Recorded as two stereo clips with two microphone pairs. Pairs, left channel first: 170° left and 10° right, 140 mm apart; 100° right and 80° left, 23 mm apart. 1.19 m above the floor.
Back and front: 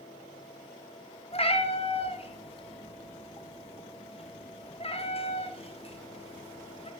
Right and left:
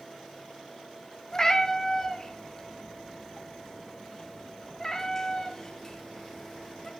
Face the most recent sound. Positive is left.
turn(degrees=-165)